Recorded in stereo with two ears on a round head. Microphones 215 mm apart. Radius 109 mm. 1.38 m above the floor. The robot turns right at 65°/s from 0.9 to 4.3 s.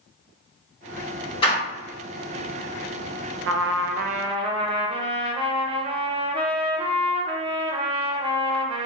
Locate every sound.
1.4 s a door slam: 20° left (ahead or behind), 1.3 m; by 1.6 s 35° left (ahead or behind), 1.3 m
3.5 s a trumpet: 85° right, 0.6 m; by 8.9 s 30° right, 0.6 m